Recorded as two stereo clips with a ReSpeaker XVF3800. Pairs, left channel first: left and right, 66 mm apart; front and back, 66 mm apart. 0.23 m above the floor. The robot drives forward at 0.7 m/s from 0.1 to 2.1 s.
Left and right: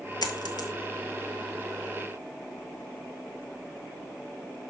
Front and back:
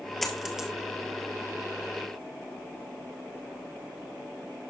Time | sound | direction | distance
0.2 | a dropped coin | 85° left | 1.3 m